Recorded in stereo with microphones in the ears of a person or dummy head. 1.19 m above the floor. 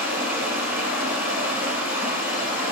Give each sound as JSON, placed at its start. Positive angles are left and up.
{"t": 0.0, "sound": "running water", "side_deg": -10, "distance_m": 3.5}